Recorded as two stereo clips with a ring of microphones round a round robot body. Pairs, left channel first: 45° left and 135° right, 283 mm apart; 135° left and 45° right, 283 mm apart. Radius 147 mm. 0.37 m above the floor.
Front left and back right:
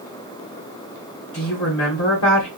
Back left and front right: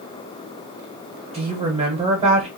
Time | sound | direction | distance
1.3 | a woman speaking | 20° left | 1.4 m